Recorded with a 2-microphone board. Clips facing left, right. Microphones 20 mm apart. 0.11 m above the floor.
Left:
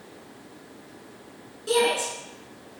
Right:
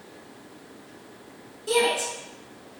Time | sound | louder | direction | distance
1.7 | a shout | even | 20° left (ahead or behind) | 1.2 m